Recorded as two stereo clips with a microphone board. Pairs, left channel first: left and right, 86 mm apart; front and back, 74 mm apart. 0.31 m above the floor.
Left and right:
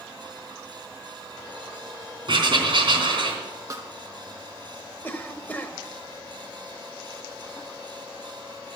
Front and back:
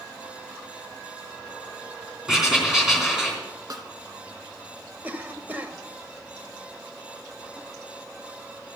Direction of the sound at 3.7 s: 140° right.